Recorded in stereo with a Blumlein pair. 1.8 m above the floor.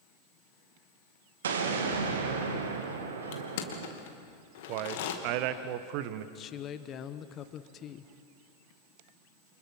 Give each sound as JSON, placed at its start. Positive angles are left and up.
{"t": 1.4, "sound": "an explosion", "azimuth_deg": -60, "distance_m": 2.5}
{"t": 3.3, "sound": "crushing", "azimuth_deg": 55, "distance_m": 2.5}
{"t": 4.7, "sound": "a man speaking", "azimuth_deg": -45, "distance_m": 1.3}
{"t": 6.3, "sound": "a woman speaking", "azimuth_deg": 25, "distance_m": 1.2}